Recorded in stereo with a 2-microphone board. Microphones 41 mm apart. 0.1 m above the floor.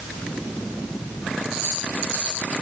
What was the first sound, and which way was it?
Only background noise.